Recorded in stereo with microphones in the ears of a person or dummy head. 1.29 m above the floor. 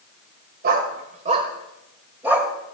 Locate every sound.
0.6 s a dog barking: 55° right (ahead or behind), 2 m; by 2.5 s 15° right (ahead or behind), 2.5 m